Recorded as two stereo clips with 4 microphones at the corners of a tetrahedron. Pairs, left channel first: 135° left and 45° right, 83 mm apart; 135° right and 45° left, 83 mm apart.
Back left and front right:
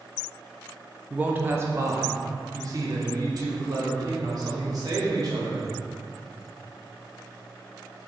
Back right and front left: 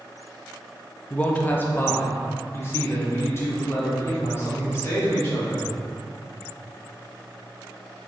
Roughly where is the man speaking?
Right.